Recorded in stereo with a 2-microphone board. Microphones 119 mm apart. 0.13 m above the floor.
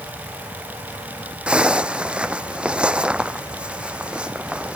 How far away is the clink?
I don't hear a clink.